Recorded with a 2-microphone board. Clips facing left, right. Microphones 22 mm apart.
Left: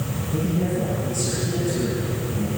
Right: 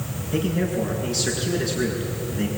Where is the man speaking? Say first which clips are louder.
Right 1 dB; 80° right, 7.5 m.